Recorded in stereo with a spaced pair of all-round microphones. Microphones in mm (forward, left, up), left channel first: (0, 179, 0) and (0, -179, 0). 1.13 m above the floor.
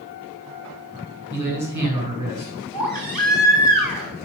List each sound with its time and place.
1.3 s a man speaking: 50° right (ahead or behind), 7.5 m
2.7 s a baby crying: 70° right (ahead or behind), 3.5 m